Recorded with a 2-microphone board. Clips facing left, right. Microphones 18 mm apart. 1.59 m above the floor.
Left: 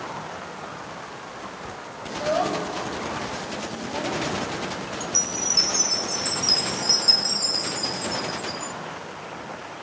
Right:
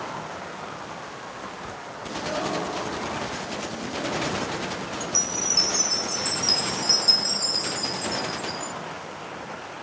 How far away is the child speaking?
About 7.5 m.